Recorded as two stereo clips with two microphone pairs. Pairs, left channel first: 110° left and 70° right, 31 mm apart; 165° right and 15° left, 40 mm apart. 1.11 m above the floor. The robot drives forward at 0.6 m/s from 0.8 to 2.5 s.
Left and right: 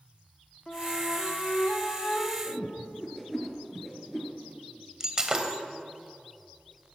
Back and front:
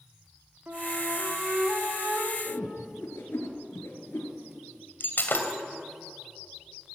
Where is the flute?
55° left, 3 m; by 2.4 s 70° left, 2.5 m.